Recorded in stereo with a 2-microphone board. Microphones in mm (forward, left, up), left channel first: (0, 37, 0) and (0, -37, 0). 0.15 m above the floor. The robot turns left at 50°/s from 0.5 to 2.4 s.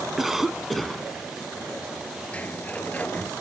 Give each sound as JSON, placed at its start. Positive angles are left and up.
{"t": 0.2, "sound": "a cough", "side_deg": -5, "distance_m": 1.1}
{"t": 2.3, "sound": "a sliding door", "side_deg": 15, "distance_m": 2.0}